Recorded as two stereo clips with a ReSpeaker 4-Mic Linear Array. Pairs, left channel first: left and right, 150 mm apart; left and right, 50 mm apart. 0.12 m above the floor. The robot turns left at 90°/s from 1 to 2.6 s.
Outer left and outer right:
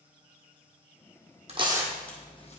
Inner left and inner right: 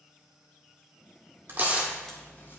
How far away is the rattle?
No rattle in this recording.